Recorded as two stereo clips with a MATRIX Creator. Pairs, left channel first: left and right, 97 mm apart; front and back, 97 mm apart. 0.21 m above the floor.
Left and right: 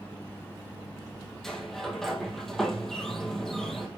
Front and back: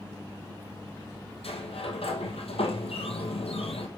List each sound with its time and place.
1.4 s a sliding door: 5° left, 2 m